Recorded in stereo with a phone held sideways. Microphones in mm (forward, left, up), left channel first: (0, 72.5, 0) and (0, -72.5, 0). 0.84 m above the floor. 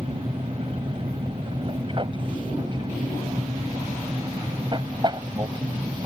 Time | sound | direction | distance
0.0 | an aircraft | 35° right (ahead or behind) | ?